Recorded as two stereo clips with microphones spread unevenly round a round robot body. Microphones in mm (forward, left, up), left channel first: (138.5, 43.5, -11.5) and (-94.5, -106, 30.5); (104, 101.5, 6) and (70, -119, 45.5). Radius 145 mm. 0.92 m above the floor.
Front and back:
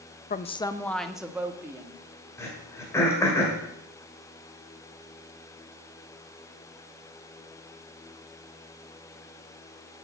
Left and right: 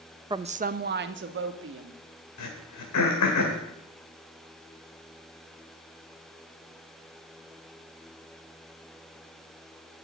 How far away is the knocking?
No knocking in this recording.